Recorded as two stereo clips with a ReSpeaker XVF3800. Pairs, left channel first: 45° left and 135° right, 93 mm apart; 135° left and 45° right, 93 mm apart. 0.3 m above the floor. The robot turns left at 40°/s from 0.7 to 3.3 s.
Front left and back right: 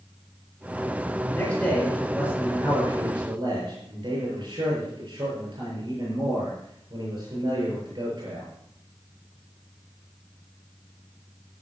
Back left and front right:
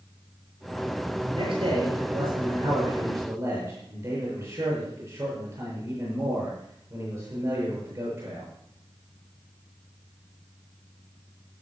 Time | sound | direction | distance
1.3 | a man speaking | 15° right | 7 m